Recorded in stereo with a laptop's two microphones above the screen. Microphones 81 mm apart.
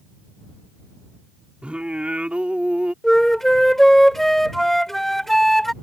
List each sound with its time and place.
1.6 s singing: 15° right (ahead or behind)
3.0 s a flute: 5° left (ahead or behind)